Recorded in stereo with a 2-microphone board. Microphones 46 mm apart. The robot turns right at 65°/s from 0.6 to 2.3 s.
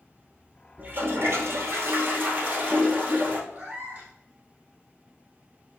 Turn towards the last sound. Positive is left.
turn(degrees=-45)  # may be behind; listen again after turning